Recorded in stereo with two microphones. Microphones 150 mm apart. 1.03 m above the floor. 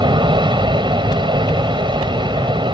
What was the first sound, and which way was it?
An aircraft, 30° right (ahead or behind).